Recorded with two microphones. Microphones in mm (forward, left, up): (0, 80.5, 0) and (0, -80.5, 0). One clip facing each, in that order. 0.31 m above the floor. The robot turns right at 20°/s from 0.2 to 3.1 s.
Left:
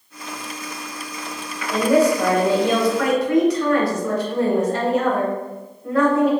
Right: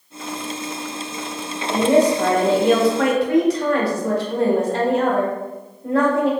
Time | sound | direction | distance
1.7 | a woman speaking | 15° right (ahead or behind) | 1.1 m